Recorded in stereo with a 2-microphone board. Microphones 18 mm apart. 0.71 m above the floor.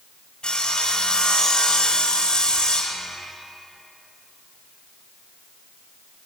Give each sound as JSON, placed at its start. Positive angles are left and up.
{"t": 0.4, "sound": "sawing", "side_deg": 55, "distance_m": 3.0}